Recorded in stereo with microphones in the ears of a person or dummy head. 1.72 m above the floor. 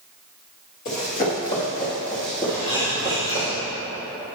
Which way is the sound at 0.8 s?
35° left (ahead or behind).